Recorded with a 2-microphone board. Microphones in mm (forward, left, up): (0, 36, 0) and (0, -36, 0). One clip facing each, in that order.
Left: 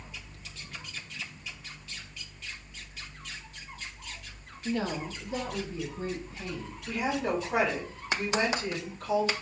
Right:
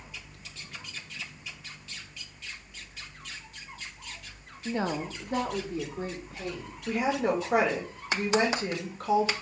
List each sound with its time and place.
4.7 s a woman speaking: 15° right (ahead or behind), 0.6 m; by 6.8 s 70° right (ahead or behind), 2.5 m
6.9 s a woman speaking: 75° right (ahead or behind), 2.5 m